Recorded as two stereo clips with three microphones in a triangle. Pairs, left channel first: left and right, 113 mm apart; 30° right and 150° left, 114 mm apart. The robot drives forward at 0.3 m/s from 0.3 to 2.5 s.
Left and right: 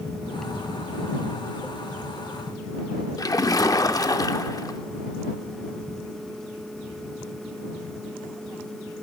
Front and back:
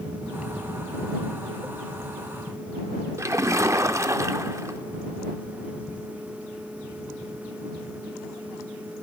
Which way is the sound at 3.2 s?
110° left.